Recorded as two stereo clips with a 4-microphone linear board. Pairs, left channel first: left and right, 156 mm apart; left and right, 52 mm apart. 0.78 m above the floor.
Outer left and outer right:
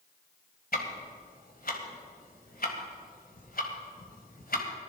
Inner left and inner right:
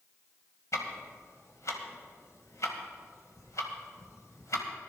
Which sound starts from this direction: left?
Ticking, at 0.7 s.